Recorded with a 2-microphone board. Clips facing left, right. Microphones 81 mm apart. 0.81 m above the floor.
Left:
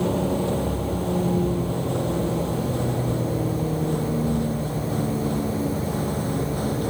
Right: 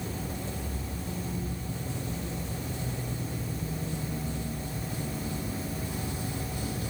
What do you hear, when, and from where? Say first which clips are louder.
0.0 s a vehicle: left 14 dB; 75° left (ahead or behind); by 6.9 s 55° left (ahead or behind)